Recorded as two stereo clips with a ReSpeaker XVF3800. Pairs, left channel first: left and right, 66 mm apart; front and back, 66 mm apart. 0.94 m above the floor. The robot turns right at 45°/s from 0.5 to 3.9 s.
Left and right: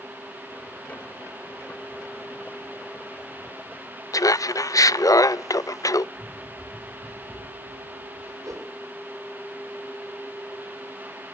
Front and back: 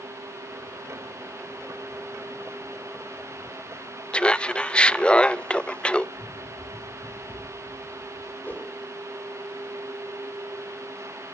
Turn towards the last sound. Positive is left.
turn(degrees=-60)